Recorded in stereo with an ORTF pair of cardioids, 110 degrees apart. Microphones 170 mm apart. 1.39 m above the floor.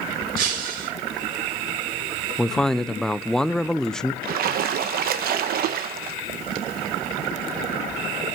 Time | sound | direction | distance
0.4 | breaking glass | 60° right | 3.5 m
2.4 | a man speaking | 5° left | 0.5 m
4.2 | a splash | 65° right | 1.0 m